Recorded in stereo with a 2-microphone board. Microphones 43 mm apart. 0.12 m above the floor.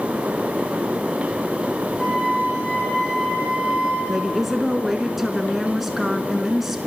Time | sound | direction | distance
2.0 | a flute | 5° left (ahead or behind) | 7 m
4.1 | a woman speaking | 5° right (ahead or behind) | 1.1 m